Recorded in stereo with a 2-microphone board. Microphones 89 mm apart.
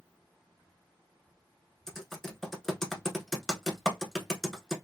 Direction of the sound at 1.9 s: 5° left (ahead or behind).